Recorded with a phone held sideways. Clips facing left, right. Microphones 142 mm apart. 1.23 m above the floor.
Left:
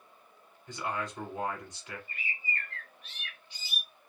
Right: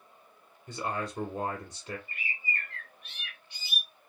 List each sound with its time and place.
0.7 s a man speaking: 45° right (ahead or behind), 1.1 m
2.1 s a bird: 55° right (ahead or behind), 1.2 m